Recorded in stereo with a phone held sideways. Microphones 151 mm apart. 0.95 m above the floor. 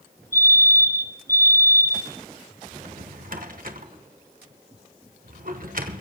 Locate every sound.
0.3 s a fire alarm: 20° right (ahead or behind), 4.5 m
2.7 s a drawer: 65° right (ahead or behind), 1.3 m